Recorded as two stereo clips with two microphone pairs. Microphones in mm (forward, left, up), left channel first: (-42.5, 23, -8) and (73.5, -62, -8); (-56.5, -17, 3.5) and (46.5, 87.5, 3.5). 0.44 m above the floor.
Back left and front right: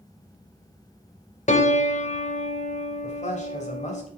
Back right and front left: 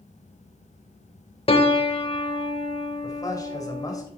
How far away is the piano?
About 0.8 m.